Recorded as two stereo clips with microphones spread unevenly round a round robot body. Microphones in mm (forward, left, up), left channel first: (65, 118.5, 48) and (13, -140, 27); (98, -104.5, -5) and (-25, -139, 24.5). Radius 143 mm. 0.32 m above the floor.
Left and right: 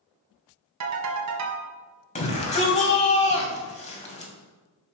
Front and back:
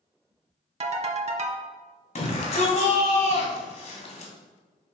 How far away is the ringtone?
About 1.5 m.